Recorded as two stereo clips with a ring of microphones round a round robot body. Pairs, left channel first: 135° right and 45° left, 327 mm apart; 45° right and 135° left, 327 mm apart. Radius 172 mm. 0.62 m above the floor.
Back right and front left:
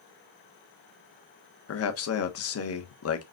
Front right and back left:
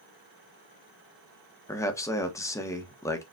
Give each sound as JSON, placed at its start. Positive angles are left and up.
{"t": 1.7, "sound": "a man speaking", "azimuth_deg": -125, "distance_m": 1.3}